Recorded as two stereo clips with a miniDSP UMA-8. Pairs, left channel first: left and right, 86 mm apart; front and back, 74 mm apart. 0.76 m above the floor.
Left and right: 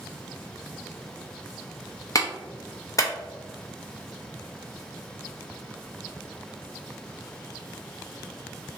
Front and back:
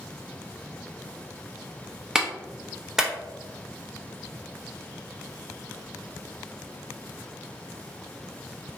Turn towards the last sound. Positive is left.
turn(degrees=100)